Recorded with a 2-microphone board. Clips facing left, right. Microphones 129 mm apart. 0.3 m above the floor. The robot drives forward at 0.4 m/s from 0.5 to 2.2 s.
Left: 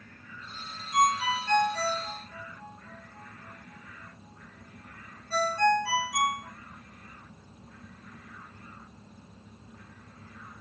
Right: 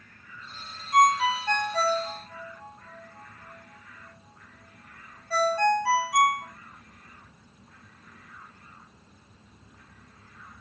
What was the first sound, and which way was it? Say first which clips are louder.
A ringtone: right 4 dB; 55° right (ahead or behind).